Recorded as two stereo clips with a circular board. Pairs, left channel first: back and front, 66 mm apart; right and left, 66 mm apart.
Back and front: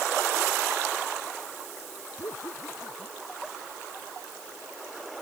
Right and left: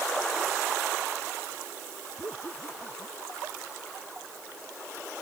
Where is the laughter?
145° right.